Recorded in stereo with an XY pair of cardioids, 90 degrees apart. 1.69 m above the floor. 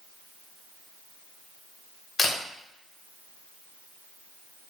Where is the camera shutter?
50° left, 1.1 m.